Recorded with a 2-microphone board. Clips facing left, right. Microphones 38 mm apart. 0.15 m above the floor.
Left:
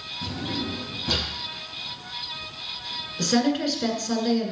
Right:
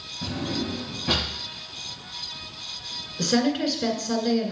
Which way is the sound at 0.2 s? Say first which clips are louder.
Right 2 dB; 15° right (ahead or behind).